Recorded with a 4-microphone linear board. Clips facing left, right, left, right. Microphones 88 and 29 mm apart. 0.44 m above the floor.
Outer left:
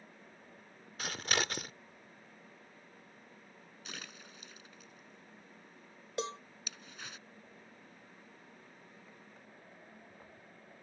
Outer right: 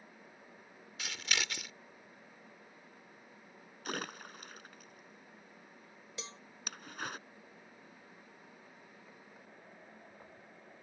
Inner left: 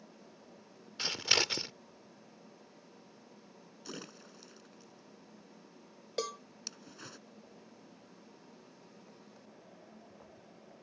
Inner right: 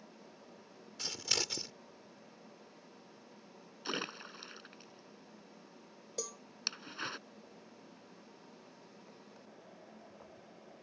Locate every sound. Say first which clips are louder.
1.0 s scissors: outer left 4 dB, inner left 6 dB; 40° left (ahead or behind)
3.9 s a splash: outer right 10 dB, inner right 8 dB; 55° right (ahead or behind)
6.2 s a cowbell: outer left 12 dB, inner left 7 dB; 55° left (ahead or behind)